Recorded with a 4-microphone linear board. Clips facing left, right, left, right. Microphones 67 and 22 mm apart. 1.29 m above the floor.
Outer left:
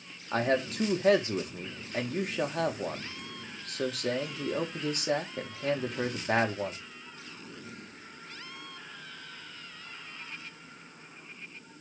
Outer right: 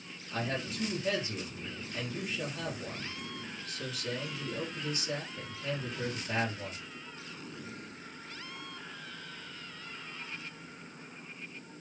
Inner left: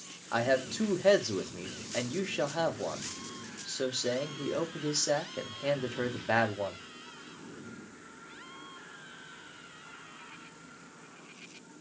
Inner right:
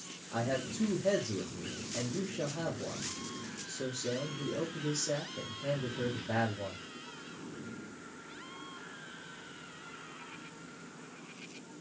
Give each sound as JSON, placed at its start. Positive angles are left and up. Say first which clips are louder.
{"t": 0.3, "sound": "a man speaking", "louder": "outer left 8 dB, inner left 6 dB", "side_deg": 60, "distance_m": 1.7}